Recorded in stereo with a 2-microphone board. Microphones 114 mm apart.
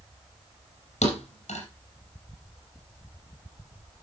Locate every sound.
1.0 s a thud: 85° left, 4.5 m